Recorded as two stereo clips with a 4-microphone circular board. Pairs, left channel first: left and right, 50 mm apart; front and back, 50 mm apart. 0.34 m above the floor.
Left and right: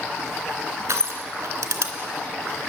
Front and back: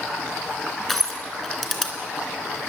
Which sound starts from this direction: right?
Crushing, at 0.9 s.